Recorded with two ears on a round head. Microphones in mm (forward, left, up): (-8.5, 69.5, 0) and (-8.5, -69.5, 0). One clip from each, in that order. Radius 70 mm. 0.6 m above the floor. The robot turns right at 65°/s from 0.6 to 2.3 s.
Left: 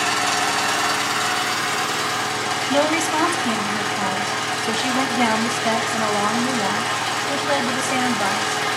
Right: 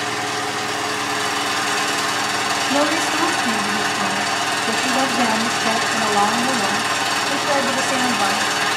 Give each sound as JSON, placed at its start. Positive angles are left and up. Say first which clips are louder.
{"t": 0.0, "sound": "an engine running", "louder": "left 3 dB", "azimuth_deg": 150, "distance_m": 4.0}
{"t": 2.7, "sound": "a woman speaking", "louder": "left 1 dB", "side_deg": 15, "distance_m": 3.5}